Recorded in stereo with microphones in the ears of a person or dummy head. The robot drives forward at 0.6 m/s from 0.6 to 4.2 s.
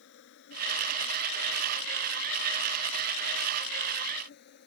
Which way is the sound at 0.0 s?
65° left (ahead or behind).